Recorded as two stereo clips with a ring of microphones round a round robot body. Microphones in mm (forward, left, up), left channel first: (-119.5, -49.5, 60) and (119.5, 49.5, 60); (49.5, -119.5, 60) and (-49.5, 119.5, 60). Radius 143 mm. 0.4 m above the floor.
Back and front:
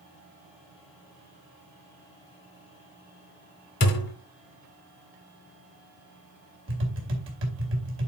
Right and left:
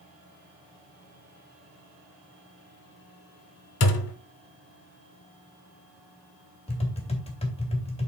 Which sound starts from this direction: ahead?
Tapping, at 6.7 s.